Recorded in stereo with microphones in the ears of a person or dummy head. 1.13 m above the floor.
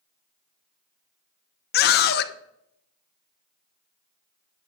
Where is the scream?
55° left (ahead or behind), 1.0 m.